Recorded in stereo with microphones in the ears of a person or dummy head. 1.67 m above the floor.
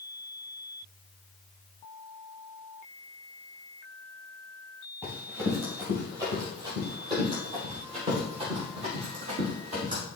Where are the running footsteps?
10° right (ahead or behind), 2.5 m; by 10.0 s 40° right (ahead or behind), 4.5 m.